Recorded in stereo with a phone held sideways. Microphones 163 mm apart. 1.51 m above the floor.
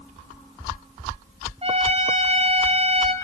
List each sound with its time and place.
1.6 s a trumpet: 40° right (ahead or behind), 3 m